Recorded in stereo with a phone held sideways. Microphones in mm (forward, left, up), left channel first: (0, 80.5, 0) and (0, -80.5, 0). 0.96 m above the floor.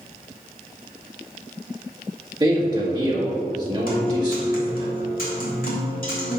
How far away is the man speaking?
About 2.0 m.